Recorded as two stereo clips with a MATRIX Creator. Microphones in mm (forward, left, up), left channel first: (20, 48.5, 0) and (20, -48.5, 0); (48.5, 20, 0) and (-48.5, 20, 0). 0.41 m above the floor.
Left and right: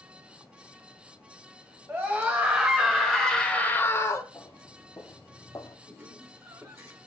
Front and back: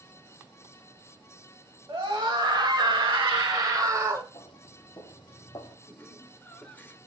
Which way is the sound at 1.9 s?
145° right.